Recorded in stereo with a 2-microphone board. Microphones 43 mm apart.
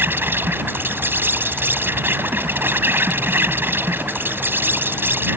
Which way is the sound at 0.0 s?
60° right (ahead or behind).